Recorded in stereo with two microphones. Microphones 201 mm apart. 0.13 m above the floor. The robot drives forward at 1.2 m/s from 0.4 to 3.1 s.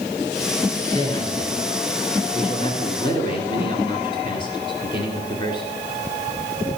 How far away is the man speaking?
About 2 m.